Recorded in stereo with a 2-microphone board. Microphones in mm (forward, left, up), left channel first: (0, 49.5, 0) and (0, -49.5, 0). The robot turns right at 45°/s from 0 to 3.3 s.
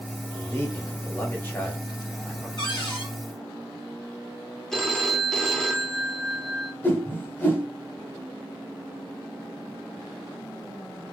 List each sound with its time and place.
0.3 s a man speaking: 20° left (ahead or behind), 1.2 m; by 2.5 s 5° left (ahead or behind), 1.2 m
2.6 s a cupboard door: 55° left (ahead or behind), 1.3 m; by 3.1 s 65° left (ahead or behind), 1.3 m
4.7 s a phone ringing: 5° left (ahead or behind), 0.6 m
6.8 s a whoosh: 20° left (ahead or behind), 0.8 m